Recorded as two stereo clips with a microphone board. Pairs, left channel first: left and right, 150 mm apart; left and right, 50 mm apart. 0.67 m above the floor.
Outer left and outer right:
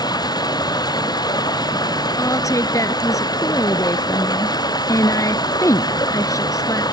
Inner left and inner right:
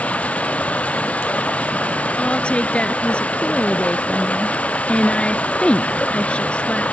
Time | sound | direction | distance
0.0 | running water | 25° left (ahead or behind) | ?
2.2 | a woman speaking | 20° left (ahead or behind) | ?